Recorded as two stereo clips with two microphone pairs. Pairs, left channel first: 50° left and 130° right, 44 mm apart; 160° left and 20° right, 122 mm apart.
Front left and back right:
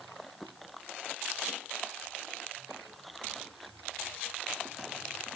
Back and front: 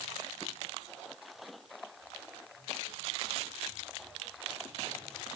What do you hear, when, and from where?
Only background noise.